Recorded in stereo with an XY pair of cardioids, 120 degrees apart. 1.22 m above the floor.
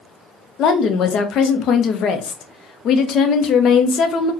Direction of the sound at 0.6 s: 55° left.